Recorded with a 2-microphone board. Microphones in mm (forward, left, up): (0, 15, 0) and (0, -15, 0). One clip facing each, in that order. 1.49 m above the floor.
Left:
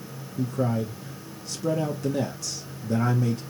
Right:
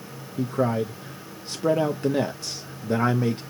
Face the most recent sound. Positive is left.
turn(degrees=-35)  # may be behind; listen again after turning